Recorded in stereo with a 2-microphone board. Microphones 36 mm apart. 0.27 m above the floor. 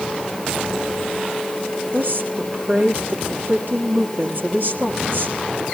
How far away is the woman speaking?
About 6 m.